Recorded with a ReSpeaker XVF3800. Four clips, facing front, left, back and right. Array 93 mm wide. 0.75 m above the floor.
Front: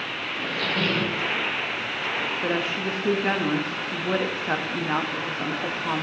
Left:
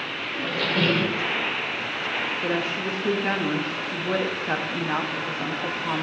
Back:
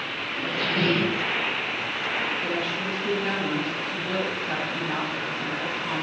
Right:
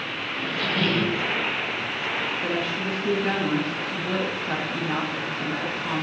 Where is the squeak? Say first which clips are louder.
Left 2 dB, back 1 dB; 100° left, 1.9 m.